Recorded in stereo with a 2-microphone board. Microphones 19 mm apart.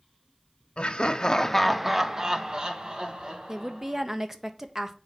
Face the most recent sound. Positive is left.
turn(degrees=-20)  # may be behind; listen again after turning